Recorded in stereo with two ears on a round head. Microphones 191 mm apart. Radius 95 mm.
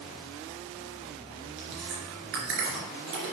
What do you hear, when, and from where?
1.6 s chewing: 60° right (ahead or behind), 2.5 m